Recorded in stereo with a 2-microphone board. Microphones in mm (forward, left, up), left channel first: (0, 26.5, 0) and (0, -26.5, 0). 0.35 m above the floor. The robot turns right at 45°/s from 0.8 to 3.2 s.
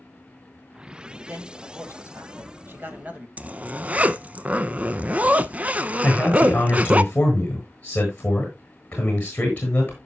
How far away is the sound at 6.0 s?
About 7.5 m.